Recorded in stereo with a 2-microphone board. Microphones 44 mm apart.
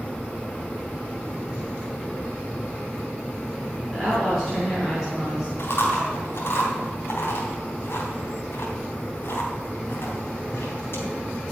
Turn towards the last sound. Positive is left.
turn(degrees=55)  # may be behind; listen again after turning